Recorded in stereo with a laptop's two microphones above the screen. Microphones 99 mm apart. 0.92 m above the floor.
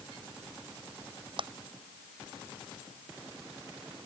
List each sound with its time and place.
1.4 s a clap: 60° right (ahead or behind)